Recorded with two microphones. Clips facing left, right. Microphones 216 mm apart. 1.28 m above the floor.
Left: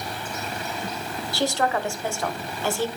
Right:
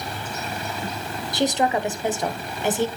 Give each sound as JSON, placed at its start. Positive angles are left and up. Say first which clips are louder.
{"t": 1.3, "sound": "a woman speaking", "louder": "right 3 dB", "side_deg": -20, "distance_m": 0.8}